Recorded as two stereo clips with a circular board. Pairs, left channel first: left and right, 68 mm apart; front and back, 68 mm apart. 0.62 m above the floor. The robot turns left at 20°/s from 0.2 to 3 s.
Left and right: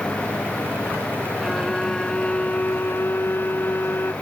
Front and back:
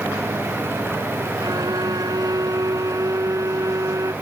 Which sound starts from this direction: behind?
A violin, at 1.4 s.